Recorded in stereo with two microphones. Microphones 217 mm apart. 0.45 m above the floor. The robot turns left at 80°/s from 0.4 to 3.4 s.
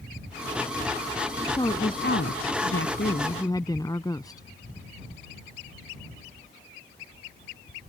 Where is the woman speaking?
170° left; by 4.5 s 20° left.